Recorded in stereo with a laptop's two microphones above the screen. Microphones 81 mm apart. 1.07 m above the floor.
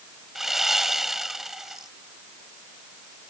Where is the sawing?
5° right (ahead or behind).